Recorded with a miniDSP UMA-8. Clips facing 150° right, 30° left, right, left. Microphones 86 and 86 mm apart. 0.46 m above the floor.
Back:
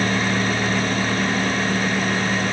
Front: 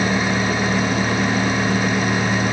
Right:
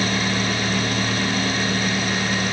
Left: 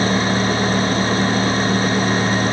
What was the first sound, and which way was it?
Only background noise.